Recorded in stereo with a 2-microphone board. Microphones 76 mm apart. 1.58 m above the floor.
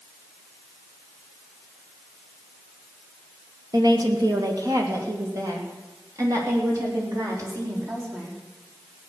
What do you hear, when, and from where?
3.7 s a woman speaking: 55° right (ahead or behind), 1.8 m; by 8.4 s 45° right (ahead or behind), 5 m